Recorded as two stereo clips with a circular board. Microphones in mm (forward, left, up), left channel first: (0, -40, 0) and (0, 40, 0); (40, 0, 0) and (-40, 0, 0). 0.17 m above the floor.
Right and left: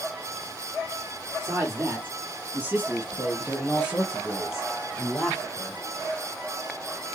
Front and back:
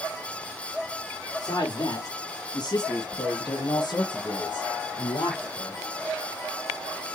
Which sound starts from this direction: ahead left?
A man speaking, at 1.4 s.